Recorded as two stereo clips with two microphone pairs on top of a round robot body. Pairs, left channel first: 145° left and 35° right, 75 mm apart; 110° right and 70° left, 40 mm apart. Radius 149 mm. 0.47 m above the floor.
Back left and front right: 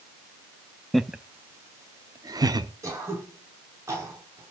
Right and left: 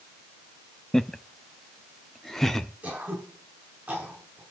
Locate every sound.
0.9 s laughter: 120° right, 0.8 m; by 2.7 s 35° right, 1.4 m
2.8 s throat clearing: 20° left, 5 m